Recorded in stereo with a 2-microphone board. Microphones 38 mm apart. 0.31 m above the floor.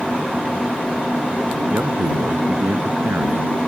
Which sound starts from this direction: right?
A man speaking, at 1.7 s.